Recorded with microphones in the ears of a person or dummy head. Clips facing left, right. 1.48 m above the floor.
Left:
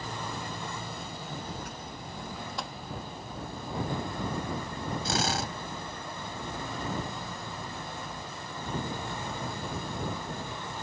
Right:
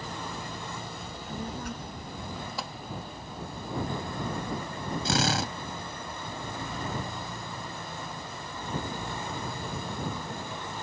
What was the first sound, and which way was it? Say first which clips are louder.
A child speaking: right 2 dB; 60° right (ahead or behind).